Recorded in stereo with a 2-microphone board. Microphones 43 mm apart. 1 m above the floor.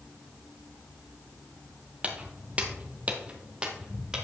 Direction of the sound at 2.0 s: 30° right (ahead or behind).